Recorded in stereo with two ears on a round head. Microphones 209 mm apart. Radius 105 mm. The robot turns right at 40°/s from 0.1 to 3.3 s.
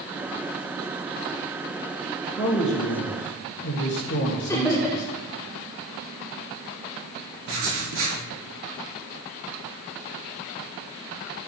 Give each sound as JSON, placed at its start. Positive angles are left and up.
{"t": 2.4, "sound": "a man speaking", "azimuth_deg": 25, "distance_m": 2.5}
{"t": 4.5, "sound": "laughter", "side_deg": 15, "distance_m": 1.5}
{"t": 7.5, "sound": "writing", "side_deg": -60, "distance_m": 4.5}